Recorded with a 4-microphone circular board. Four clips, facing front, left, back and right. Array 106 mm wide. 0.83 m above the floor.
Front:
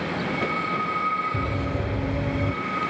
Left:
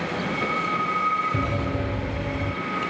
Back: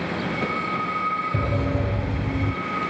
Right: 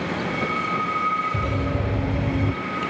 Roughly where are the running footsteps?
Behind left.